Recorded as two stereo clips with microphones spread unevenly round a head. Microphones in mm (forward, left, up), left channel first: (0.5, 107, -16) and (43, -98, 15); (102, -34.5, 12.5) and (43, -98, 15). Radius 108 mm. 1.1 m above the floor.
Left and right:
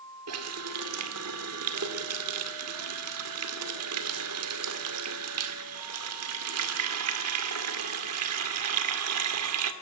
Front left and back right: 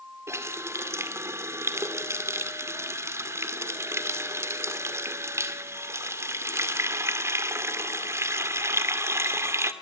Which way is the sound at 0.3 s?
75° right.